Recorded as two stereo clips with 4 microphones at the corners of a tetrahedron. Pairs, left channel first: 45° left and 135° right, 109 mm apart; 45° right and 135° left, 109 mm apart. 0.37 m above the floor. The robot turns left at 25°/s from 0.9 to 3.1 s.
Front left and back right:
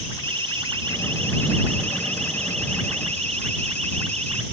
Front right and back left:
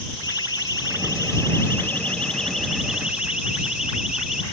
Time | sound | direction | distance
0.2 | a siren | 100° right | ?